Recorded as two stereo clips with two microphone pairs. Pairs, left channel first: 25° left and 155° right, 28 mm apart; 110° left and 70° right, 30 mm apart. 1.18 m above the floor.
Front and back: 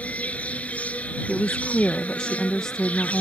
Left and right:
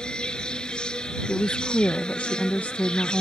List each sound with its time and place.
0.0 s an insect: 50° left
1.3 s a woman speaking: 80° left